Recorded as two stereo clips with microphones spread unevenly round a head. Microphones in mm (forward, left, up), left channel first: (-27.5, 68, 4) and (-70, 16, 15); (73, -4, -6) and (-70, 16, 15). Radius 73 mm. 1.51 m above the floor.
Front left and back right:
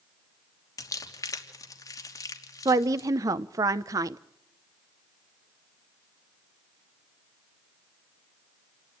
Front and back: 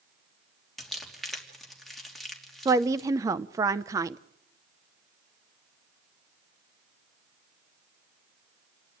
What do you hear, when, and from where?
0.8 s crumpling: 80° left, 3 m
2.6 s a woman speaking: 125° right, 0.6 m